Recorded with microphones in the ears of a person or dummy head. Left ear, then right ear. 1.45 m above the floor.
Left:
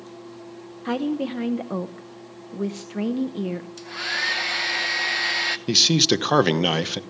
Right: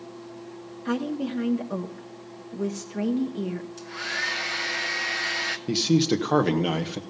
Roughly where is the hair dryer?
Centre.